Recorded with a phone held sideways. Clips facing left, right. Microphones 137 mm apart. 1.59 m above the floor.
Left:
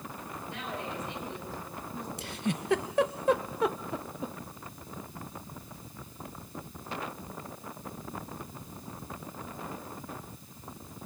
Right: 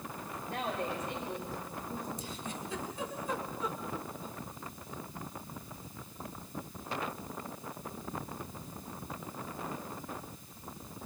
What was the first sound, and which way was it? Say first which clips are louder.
A woman speaking: right 3 dB; 55° right (ahead or behind).